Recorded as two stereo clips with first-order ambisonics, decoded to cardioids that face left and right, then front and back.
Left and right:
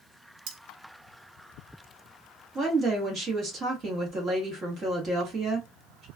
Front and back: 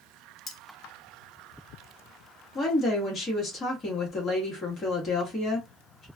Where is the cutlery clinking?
65° right, 0.7 m.